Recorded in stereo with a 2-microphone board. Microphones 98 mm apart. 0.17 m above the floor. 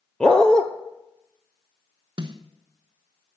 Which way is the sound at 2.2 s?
50° right (ahead or behind).